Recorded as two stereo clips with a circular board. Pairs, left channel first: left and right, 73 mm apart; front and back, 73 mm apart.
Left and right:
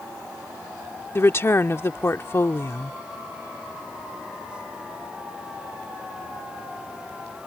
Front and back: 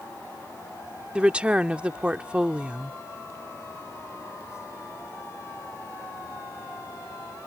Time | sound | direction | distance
1.1 | a woman speaking | 115° left | ?